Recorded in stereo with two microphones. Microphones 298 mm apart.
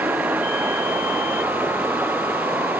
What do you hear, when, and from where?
0.0 s running water: 5° right (ahead or behind)